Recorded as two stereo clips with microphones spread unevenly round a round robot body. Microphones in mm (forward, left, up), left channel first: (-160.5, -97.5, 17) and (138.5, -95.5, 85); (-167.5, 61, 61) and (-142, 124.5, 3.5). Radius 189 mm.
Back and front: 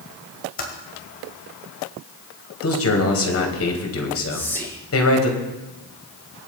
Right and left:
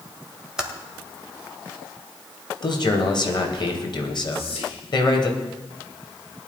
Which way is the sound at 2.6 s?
150° right.